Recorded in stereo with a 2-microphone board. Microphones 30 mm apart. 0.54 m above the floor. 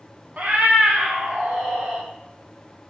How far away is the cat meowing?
About 0.6 m.